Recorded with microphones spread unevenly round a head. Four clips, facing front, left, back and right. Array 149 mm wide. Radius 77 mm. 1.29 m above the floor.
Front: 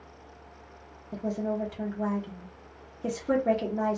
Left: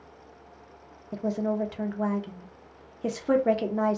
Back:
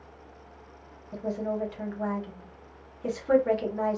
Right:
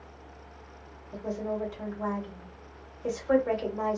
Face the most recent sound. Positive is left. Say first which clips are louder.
# left 5 dB, even
turn(degrees=70)